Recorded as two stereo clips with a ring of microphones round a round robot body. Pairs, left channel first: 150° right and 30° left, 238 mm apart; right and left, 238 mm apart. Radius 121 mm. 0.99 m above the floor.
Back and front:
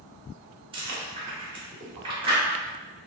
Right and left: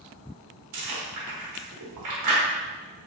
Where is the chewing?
100° left, 1.0 m.